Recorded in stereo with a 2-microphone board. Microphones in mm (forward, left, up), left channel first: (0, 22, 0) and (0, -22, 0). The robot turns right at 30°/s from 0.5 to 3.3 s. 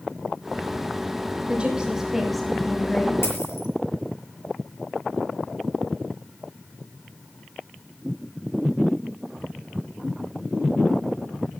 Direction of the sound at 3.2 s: 65° left (ahead or behind).